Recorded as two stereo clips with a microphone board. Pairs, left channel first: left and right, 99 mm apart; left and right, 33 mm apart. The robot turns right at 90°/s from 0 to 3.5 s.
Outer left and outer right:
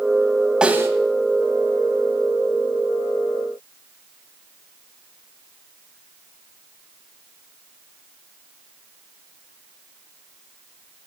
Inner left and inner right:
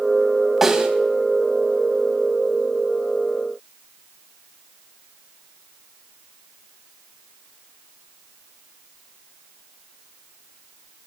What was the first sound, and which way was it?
A snare drum, 10° right (ahead or behind).